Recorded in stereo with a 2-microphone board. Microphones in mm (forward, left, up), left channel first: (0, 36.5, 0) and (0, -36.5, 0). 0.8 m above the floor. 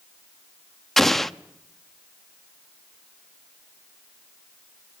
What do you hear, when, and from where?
1.0 s an explosion: 5° left (ahead or behind), 0.7 m